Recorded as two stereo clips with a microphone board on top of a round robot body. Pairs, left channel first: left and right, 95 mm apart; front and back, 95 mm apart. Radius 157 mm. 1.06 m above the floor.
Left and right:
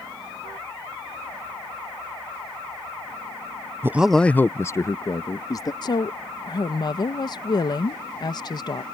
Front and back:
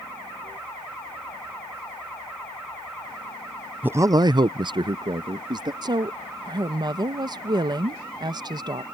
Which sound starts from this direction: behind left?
A woman speaking, at 5.8 s.